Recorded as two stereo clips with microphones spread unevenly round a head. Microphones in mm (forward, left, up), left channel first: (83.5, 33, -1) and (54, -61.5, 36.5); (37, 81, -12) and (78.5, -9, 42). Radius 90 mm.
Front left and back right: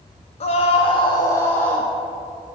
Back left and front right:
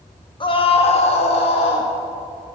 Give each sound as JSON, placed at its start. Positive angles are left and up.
{"t": 0.4, "sound": "a scream", "azimuth_deg": 80, "distance_m": 1.3}